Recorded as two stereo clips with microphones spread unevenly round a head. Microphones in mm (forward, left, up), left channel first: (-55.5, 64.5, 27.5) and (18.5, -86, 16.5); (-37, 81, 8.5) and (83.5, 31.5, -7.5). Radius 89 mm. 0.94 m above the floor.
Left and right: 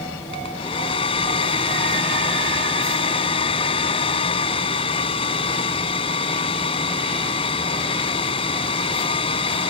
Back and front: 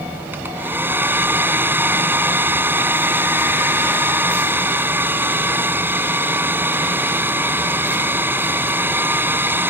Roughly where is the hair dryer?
Ahead left.